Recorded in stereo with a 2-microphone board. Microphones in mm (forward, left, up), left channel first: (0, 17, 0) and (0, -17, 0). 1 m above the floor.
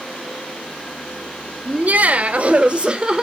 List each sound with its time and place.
1.6 s laughter: 55° right (ahead or behind), 0.9 m; by 3.2 s 25° right (ahead or behind), 1.2 m